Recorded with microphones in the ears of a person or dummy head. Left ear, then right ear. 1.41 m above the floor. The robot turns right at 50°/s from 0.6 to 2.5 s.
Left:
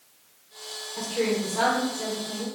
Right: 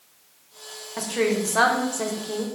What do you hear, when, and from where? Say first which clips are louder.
1.0 s a woman speaking: right 3 dB; 145° right, 0.6 m; by 2.5 s 70° right, 0.6 m